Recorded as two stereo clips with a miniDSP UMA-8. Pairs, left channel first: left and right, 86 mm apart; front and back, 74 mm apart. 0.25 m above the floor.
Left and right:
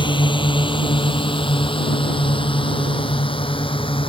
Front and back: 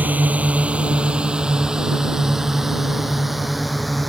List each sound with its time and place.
0.0 s a drone: 110° left; by 4.1 s 90° left